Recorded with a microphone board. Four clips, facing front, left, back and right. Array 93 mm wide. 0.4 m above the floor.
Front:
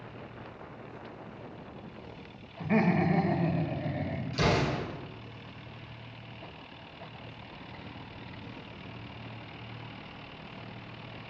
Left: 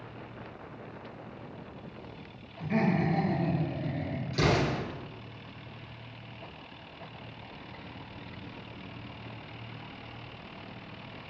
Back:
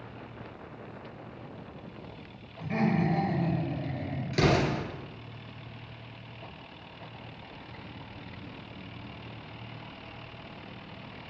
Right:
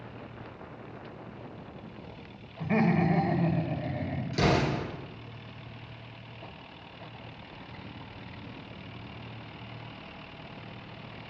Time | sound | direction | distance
2.6 | laughter | 45° right | 1.2 m
4.3 | an explosion | 175° right | 3 m